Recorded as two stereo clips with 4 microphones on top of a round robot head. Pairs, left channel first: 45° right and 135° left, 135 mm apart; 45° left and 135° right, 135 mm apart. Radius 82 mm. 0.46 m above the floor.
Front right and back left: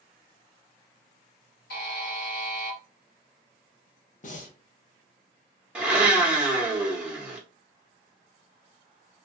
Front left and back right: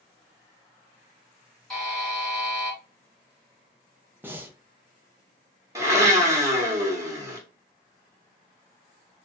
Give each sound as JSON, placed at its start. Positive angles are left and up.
{"t": 1.7, "sound": "a buzzer", "azimuth_deg": -45, "distance_m": 1.4}
{"t": 4.2, "sound": "breathing", "azimuth_deg": -65, "distance_m": 0.6}
{"t": 5.8, "sound": "a blender", "azimuth_deg": -155, "distance_m": 1.0}